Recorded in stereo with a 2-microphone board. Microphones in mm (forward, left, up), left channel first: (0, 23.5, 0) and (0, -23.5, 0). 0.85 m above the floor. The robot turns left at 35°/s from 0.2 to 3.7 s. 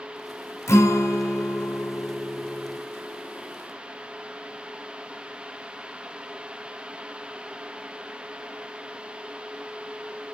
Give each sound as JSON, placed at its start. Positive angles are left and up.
{"t": 0.7, "sound": "a guitar", "azimuth_deg": 75, "distance_m": 2.0}